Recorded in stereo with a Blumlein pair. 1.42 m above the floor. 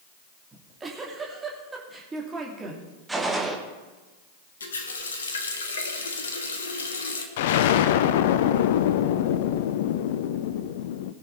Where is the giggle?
15° right, 2.5 m.